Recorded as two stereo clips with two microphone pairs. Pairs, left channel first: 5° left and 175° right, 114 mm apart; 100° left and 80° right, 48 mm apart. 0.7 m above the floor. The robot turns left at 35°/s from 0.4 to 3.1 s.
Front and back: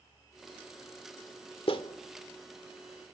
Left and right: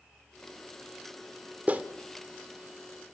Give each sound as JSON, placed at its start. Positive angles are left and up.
{"t": 1.7, "sound": "a clap", "azimuth_deg": -25, "distance_m": 1.5}